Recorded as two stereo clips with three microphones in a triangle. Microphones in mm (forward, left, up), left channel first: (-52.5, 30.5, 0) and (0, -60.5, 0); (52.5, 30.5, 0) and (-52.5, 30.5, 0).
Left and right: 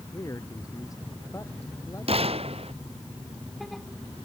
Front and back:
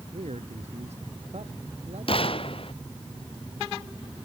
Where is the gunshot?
35° right.